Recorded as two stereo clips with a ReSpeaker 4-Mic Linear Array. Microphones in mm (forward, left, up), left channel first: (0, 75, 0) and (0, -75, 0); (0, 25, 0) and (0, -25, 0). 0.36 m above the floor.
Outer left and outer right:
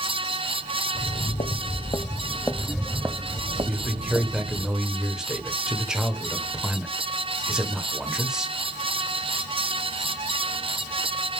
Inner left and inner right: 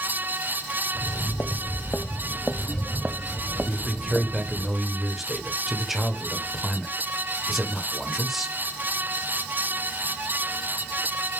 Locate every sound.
0.9 s footsteps: 65° left (ahead or behind), 1.1 m; by 4.7 s 55° right (ahead or behind), 1.3 m
3.7 s a man speaking: 5° right (ahead or behind), 1.1 m